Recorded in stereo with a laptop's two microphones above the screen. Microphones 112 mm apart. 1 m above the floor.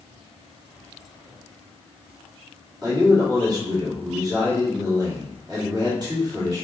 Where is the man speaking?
35° right (ahead or behind), 1.9 m.